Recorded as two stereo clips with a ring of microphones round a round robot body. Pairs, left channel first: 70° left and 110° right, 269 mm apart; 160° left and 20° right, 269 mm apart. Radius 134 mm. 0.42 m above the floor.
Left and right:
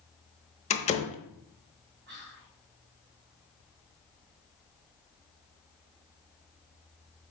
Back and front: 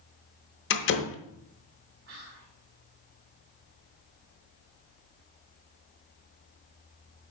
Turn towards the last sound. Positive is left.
turn(degrees=-60)